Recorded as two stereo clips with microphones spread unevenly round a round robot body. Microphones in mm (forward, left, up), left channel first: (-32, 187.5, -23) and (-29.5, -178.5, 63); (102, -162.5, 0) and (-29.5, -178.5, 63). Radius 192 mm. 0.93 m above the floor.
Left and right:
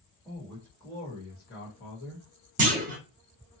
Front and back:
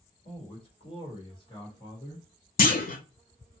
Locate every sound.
0.2 s a man speaking: 5° left, 1.6 m; by 2.3 s 60° left, 1.5 m
2.6 s a clunk: 25° right, 0.7 m